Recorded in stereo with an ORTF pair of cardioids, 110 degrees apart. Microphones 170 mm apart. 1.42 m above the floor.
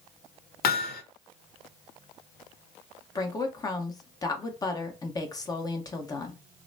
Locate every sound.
0.6 s hammering: 65° left, 0.8 m
3.1 s a woman speaking: 20° left, 1.2 m